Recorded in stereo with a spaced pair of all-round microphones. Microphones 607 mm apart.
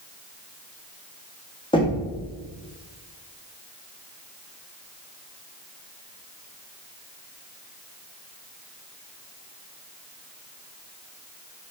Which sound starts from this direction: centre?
Knocking, at 1.7 s.